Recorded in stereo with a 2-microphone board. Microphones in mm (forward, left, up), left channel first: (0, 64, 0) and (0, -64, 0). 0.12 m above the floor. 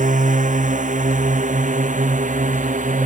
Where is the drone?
80° right; by 3.1 s 85° right.